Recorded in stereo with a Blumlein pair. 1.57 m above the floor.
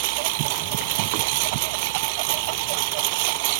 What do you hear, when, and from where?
0.0 s a lawn mower: 45° right